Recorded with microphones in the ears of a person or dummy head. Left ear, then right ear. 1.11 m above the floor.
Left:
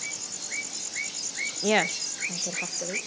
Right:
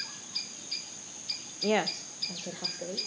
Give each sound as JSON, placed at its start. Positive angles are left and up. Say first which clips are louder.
{"t": 1.6, "sound": "a woman speaking", "louder": "left 4 dB", "side_deg": 70, "distance_m": 0.7}